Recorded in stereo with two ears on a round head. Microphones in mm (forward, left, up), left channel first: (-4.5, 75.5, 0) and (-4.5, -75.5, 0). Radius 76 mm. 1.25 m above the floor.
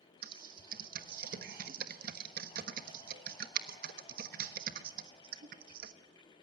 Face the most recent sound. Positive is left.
turn(degrees=-60)  # may be behind; listen again after turning